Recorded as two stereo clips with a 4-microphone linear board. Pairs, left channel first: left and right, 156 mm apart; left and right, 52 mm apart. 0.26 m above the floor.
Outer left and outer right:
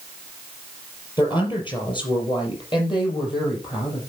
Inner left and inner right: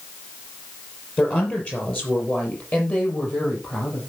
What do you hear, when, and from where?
1.2 s a woman speaking: 30° left (ahead or behind), 5.5 m